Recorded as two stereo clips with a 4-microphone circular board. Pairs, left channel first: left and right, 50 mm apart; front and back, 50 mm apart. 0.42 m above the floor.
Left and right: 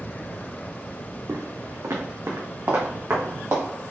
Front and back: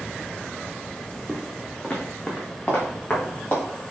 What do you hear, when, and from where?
1.3 s footsteps: 80° right, 1.3 m; by 3.6 s 60° right, 3.5 m